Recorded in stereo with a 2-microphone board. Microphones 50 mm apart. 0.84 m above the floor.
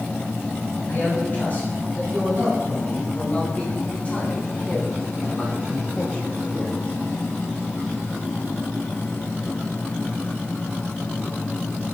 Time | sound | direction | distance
0.9 | a man speaking | 40° left (ahead or behind) | 6.5 m